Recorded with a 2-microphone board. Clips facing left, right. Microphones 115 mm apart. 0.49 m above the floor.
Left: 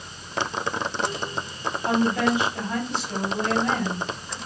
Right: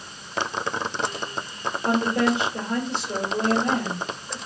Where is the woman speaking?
55° right (ahead or behind), 1.6 m.